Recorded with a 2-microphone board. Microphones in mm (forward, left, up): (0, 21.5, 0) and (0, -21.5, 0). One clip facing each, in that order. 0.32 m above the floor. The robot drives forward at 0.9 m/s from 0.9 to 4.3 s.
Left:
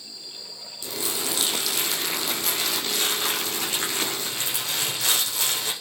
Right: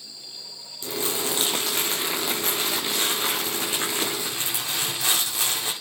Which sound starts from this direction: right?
Crumpling, at 0.8 s.